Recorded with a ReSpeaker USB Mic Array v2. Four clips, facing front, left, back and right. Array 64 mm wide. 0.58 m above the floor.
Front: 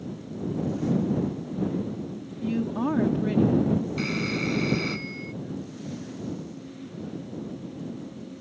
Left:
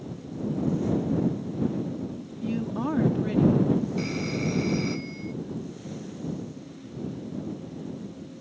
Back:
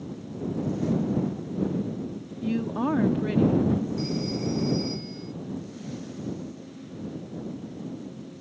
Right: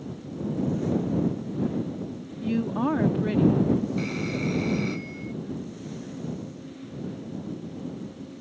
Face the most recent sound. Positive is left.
turn(degrees=0)